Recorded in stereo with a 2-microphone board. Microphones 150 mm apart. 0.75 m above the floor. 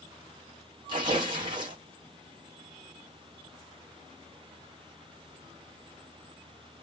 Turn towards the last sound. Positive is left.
turn(degrees=-30)  # may be behind; listen again after turning